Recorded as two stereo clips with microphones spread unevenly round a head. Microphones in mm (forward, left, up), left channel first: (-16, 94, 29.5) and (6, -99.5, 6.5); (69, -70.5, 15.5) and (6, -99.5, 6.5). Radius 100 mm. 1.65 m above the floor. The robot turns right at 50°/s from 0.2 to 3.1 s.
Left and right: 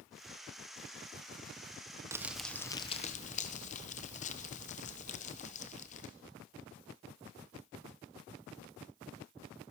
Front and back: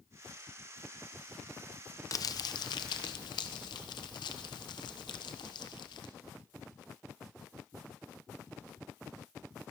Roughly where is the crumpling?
Ahead.